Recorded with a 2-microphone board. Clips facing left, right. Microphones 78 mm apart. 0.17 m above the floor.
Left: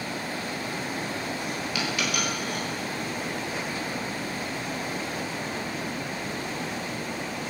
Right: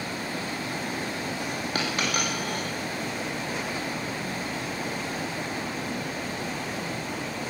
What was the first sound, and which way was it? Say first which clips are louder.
A dropped coin: right 1 dB; 40° right (ahead or behind).